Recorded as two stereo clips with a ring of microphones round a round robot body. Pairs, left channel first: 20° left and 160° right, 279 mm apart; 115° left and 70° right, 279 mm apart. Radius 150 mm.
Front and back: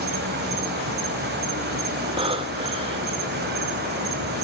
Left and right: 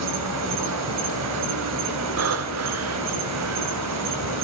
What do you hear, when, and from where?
0.0 s an insect: 100° right, 1.2 m
2.2 s breathing: 90° right, 1.2 m